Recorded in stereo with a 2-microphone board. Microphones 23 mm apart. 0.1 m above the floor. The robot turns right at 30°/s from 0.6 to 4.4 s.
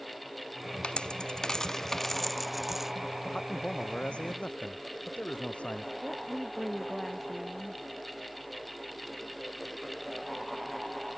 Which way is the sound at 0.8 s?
50° left (ahead or behind).